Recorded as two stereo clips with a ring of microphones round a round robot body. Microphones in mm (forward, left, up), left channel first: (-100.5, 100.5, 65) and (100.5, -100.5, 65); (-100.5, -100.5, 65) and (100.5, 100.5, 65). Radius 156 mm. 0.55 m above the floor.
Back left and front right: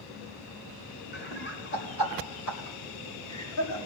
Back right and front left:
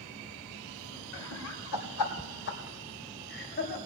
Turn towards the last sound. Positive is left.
turn(degrees=165)